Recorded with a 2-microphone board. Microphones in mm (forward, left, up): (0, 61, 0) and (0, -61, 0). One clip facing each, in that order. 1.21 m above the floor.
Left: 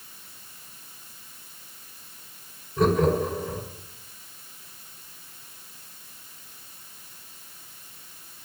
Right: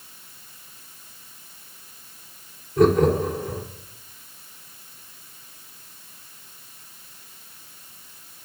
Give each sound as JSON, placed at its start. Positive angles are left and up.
{"t": 2.8, "sound": "laughter", "side_deg": -80, "distance_m": 3.5}